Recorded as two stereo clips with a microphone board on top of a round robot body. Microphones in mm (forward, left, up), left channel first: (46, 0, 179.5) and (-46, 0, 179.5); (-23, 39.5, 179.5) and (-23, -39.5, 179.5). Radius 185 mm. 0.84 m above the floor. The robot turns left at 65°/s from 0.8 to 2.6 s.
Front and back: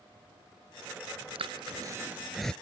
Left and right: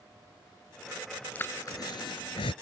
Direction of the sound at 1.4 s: 160° left.